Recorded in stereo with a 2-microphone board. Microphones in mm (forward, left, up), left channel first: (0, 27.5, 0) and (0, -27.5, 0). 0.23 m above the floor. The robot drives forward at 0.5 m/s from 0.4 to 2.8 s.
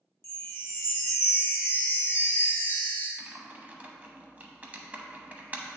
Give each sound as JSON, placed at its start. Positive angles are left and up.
{"t": 0.2, "sound": "a chime", "side_deg": 45, "distance_m": 0.9}
{"t": 3.2, "sound": "typing on a keyboard", "side_deg": -30, "distance_m": 0.8}